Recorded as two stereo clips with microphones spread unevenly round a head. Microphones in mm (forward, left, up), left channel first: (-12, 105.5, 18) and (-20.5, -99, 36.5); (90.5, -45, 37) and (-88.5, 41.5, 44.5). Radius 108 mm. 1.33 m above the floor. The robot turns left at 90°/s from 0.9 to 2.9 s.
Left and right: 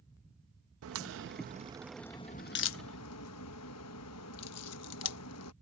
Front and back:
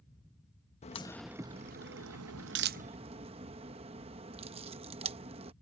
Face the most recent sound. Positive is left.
turn(degrees=95)